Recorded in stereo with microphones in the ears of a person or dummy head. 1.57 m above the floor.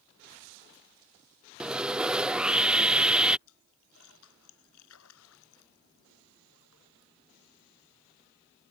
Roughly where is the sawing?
Centre.